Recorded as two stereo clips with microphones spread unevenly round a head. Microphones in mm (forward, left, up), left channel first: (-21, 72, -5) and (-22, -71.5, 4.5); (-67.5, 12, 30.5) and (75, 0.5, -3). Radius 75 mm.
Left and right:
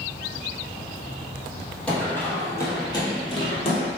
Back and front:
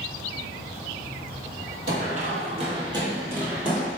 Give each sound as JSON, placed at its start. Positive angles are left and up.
{"t": 1.9, "sound": "running footsteps", "azimuth_deg": 5, "distance_m": 1.6}